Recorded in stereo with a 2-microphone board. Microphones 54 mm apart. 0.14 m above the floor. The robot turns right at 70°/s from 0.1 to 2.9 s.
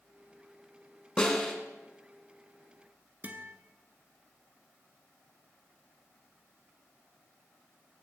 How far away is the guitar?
About 0.7 m.